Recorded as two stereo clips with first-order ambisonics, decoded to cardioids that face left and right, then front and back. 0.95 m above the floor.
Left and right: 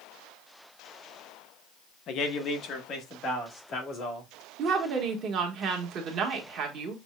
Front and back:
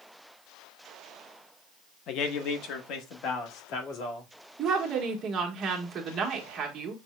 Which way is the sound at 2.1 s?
45° left.